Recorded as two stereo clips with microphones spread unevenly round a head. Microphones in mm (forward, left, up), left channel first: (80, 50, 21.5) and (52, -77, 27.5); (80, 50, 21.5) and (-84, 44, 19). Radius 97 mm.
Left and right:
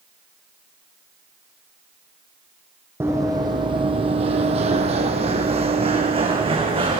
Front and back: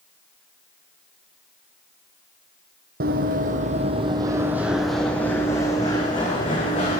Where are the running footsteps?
175° right, 1.5 m; by 7.0 s 60° right, 3 m.